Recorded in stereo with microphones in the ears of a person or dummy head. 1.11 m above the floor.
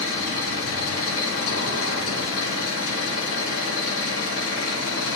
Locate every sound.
0.0 s an engine running: 85° left, 5 m